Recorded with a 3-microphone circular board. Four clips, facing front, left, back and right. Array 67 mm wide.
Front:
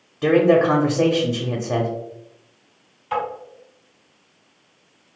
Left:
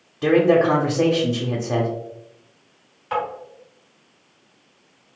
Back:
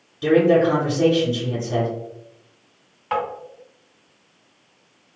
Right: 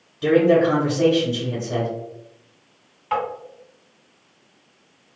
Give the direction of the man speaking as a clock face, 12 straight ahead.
11 o'clock.